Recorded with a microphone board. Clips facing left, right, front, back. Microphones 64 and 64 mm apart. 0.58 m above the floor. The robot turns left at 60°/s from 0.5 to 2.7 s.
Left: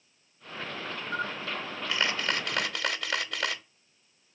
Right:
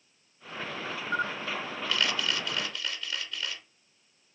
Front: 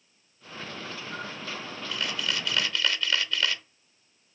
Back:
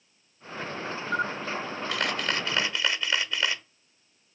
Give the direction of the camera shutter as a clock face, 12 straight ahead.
5 o'clock.